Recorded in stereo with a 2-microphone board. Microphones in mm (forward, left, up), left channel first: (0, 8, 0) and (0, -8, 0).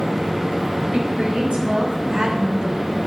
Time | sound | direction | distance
0.9 | a woman speaking | 80° right | 4 m